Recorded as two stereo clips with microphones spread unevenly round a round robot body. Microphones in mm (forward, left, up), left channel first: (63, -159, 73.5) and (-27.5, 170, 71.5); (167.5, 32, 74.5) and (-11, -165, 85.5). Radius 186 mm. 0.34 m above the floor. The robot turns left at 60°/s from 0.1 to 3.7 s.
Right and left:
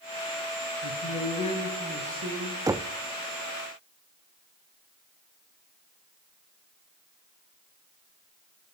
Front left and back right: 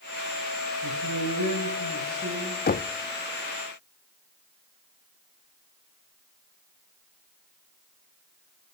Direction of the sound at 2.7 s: 30° left.